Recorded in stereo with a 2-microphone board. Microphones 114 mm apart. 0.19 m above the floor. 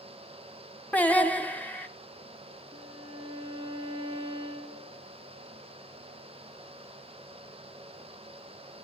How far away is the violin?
About 6 m.